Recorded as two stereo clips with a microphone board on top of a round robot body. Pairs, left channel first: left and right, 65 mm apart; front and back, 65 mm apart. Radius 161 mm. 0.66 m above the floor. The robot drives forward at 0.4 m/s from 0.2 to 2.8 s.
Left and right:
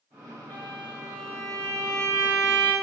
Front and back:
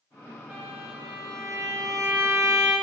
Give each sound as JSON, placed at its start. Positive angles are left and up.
{"t": 0.5, "sound": "a violin", "azimuth_deg": -120, "distance_m": 1.5}